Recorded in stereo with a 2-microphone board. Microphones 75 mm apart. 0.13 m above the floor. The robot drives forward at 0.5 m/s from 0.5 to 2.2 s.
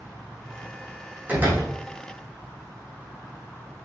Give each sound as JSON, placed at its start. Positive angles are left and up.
{"t": 1.3, "sound": "a door slam", "side_deg": -25, "distance_m": 4.5}